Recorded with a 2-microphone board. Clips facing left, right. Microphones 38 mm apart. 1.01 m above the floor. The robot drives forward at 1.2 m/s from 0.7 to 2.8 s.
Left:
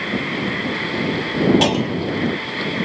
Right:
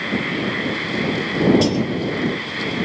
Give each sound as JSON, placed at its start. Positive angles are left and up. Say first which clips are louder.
{"t": 1.6, "sound": "a clunk", "louder": "left 1 dB", "side_deg": 60}